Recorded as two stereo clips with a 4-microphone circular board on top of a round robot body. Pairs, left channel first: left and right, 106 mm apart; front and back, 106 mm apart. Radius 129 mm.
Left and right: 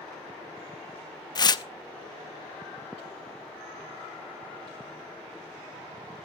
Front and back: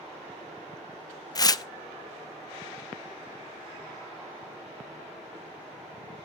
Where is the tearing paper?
50° left, 1.0 m.